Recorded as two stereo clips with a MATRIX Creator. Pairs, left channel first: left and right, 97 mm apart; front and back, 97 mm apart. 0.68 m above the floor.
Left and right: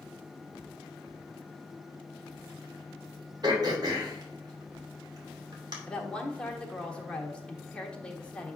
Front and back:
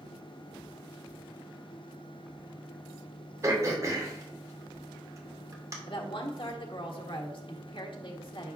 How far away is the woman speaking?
About 1.6 m.